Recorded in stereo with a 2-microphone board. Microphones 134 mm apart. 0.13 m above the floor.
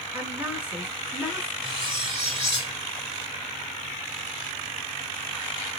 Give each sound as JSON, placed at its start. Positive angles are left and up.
{"t": 0.1, "sound": "a woman speaking", "side_deg": -15, "distance_m": 1.3}
{"t": 1.6, "sound": "cutlery clinking", "side_deg": -40, "distance_m": 1.3}